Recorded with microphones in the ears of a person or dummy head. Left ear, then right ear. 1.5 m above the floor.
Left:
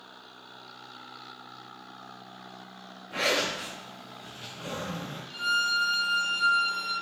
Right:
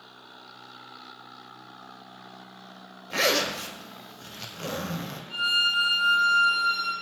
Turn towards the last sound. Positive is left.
turn(degrees=5)  # may be behind; listen again after turning